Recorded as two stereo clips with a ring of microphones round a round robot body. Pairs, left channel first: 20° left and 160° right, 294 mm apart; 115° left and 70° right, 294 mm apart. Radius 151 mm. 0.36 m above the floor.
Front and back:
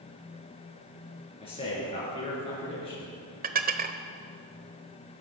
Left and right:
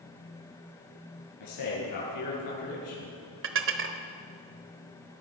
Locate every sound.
1.4 s a man speaking: 95° left, 6.5 m
3.4 s dishes clattering: 105° right, 1.1 m